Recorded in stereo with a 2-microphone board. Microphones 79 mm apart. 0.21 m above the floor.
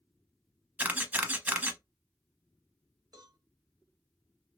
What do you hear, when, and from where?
0.8 s a camera shutter: 20° right (ahead or behind), 0.7 m
3.1 s a cowbell: 55° right (ahead or behind), 1.7 m